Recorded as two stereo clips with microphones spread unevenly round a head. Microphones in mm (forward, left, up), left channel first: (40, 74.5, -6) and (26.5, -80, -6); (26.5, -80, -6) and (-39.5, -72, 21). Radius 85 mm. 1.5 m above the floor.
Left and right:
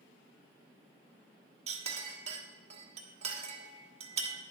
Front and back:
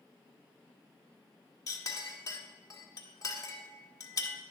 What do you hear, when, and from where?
1.7 s a clink: 50° right, 1.6 m